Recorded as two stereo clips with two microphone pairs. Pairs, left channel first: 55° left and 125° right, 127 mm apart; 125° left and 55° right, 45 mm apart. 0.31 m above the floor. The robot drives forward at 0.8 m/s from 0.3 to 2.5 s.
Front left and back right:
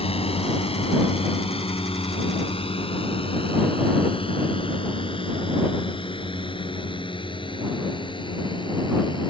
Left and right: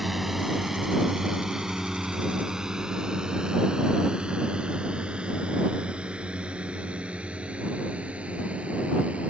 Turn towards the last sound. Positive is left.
turn(degrees=5)